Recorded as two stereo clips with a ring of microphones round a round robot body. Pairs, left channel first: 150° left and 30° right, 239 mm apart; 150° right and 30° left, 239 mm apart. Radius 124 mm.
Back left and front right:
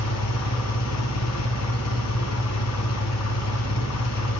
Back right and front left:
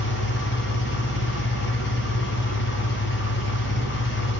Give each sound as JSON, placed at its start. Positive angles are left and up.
{"t": 0.0, "sound": "an engine running", "azimuth_deg": 165, "distance_m": 1.7}